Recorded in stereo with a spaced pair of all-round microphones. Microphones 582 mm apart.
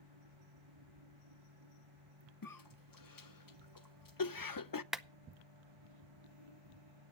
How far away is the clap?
About 0.5 m.